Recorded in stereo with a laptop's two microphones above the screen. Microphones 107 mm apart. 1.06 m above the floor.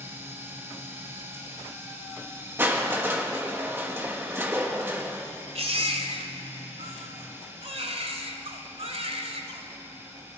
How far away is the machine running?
About 3.5 m.